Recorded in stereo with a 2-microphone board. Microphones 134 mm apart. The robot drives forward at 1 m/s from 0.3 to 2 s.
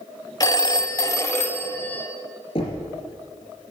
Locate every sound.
0.4 s a phone ringing: 25° left (ahead or behind), 0.7 m; by 2.1 s 10° left (ahead or behind), 1.4 m
2.5 s knocking: 50° left (ahead or behind), 3.5 m